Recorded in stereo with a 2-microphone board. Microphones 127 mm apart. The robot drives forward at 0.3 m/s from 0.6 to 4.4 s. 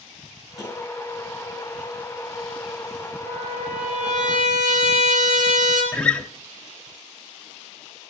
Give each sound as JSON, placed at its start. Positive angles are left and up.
{"t": 0.6, "sound": "tapping", "side_deg": -25, "distance_m": 7.0}
{"t": 3.2, "sound": "a trumpet", "side_deg": -75, "distance_m": 6.0}
{"t": 5.9, "sound": "a guitar", "side_deg": 10, "distance_m": 1.2}